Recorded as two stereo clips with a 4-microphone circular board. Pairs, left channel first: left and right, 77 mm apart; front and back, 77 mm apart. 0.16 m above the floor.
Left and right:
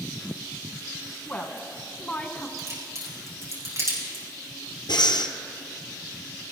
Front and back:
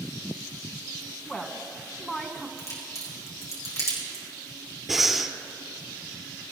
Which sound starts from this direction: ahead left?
A woman speaking, at 1.2 s.